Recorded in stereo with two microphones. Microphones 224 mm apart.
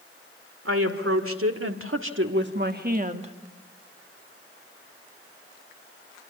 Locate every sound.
0.7 s a woman speaking: 70° right (ahead or behind), 2.5 m; by 3.3 s 25° right (ahead or behind), 1.3 m